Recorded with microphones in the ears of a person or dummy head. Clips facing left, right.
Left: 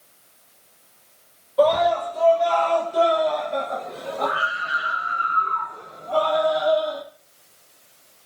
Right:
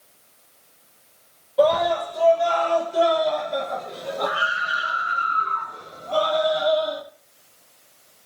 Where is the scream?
10° right (ahead or behind), 5.5 m; by 7.0 s 25° right (ahead or behind), 7.5 m.